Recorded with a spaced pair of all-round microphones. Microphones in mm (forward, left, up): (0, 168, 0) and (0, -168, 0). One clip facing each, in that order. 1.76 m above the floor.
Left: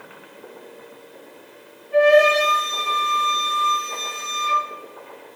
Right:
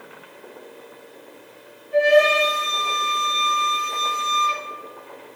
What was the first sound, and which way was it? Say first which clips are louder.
A flute: left 2 dB; 70° left (ahead or behind).